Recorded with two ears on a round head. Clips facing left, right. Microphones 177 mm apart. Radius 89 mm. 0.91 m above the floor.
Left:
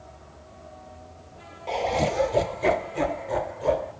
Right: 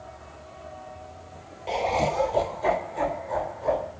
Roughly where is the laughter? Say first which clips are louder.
Even; centre.